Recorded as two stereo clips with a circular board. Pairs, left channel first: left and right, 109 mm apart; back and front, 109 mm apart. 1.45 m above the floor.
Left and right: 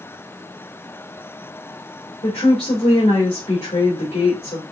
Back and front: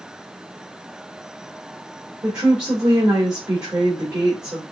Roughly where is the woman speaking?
Ahead left.